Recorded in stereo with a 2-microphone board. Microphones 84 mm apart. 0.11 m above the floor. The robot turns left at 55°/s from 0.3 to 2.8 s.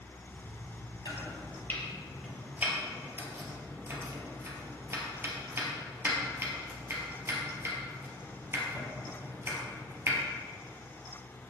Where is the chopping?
50° left (ahead or behind), 2.5 m; by 10.2 s 30° right (ahead or behind), 2.5 m.